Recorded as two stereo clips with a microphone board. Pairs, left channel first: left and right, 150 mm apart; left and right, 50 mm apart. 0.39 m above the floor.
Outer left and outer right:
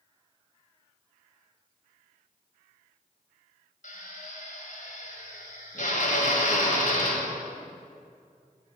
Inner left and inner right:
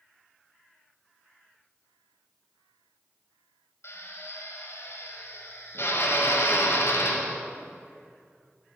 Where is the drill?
60° left (ahead or behind), 1.9 m.